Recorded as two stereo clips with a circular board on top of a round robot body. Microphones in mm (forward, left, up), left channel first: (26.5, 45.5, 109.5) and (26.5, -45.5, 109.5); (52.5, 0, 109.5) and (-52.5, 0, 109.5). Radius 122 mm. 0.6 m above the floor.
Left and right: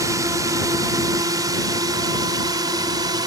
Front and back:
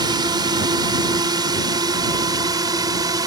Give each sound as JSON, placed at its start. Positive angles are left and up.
{"t": 0.0, "sound": "a drone", "azimuth_deg": -135}